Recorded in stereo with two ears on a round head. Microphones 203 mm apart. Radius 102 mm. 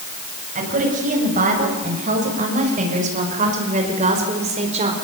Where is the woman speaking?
40° right (ahead or behind), 7.5 m; by 4.9 s 35° right (ahead or behind), 4.5 m.